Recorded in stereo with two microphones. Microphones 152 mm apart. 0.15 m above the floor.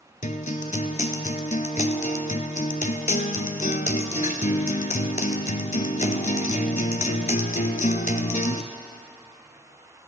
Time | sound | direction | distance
0.2 | a guitar | 55° left (ahead or behind) | 0.6 m